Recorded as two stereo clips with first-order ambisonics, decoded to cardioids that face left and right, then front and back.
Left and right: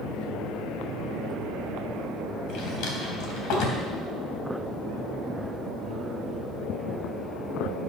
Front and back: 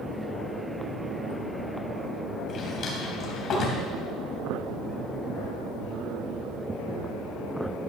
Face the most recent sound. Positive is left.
turn(degrees=60)